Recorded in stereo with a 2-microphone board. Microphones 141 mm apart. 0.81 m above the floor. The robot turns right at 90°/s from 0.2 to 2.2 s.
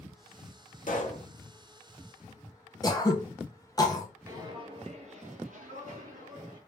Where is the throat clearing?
25° left (ahead or behind), 0.7 m.